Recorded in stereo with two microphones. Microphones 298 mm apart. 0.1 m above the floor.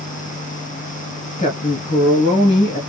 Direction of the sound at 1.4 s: 20° left (ahead or behind).